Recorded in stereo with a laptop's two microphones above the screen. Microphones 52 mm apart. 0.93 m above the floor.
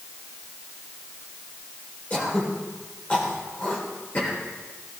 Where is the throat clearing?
30° left (ahead or behind), 2 m.